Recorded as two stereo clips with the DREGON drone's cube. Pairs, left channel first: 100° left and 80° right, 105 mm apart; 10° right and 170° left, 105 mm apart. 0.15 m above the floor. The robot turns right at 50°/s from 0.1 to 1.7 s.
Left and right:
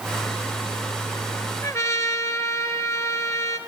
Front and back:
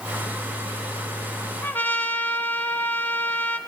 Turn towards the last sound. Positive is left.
turn(degrees=50)